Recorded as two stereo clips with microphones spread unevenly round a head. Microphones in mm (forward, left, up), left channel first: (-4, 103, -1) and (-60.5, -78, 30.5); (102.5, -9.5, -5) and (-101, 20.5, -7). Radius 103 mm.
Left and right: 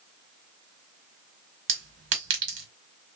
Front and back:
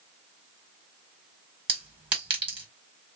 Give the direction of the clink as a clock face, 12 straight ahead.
4 o'clock.